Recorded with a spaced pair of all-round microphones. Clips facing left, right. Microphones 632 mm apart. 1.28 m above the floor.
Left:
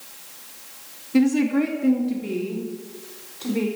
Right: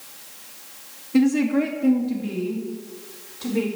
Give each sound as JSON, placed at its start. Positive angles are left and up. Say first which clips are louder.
{"t": 1.1, "sound": "a woman speaking", "louder": "even", "side_deg": 0, "distance_m": 2.0}